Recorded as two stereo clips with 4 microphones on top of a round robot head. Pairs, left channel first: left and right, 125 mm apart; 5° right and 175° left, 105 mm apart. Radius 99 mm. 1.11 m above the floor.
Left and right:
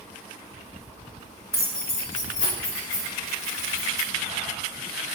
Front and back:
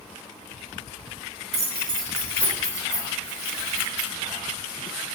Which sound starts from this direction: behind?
Keys jangling, at 1.5 s.